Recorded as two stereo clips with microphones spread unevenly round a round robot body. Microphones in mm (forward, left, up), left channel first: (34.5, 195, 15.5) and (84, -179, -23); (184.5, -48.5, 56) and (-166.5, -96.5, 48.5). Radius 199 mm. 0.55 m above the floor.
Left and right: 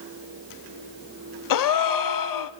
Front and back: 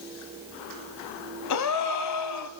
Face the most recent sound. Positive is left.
turn(degrees=60)